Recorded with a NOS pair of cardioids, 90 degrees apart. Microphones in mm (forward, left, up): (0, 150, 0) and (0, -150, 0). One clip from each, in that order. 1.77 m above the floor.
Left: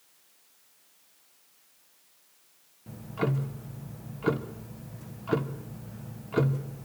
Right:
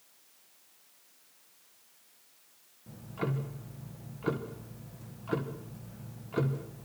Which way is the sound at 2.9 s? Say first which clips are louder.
Left 5 dB; 30° left.